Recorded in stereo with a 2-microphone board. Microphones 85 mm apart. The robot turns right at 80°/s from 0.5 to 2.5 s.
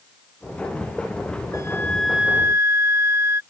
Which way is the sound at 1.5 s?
135° left.